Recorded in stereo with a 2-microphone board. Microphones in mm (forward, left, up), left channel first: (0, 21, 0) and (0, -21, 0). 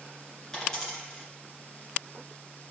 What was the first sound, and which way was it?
A dropped coin, 10° left (ahead or behind).